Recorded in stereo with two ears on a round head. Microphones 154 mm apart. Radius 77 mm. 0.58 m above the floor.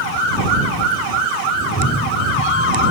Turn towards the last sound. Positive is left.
turn(degrees=75)  # may be behind; listen again after turning